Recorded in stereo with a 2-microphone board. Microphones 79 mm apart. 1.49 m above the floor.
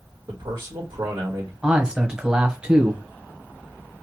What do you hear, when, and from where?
0.3 s a man speaking: 70° right (ahead or behind), 1.3 m
1.6 s a man speaking: 10° right (ahead or behind), 1.0 m